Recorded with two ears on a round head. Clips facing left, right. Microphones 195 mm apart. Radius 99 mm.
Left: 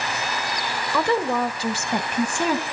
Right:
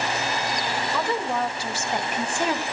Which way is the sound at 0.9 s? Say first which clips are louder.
Left 6 dB; 55° left (ahead or behind).